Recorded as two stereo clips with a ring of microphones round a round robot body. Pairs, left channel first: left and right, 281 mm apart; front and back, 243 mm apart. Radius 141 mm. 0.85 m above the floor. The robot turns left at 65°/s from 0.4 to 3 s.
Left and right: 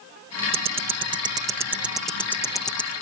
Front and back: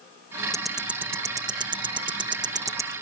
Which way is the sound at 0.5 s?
85° right.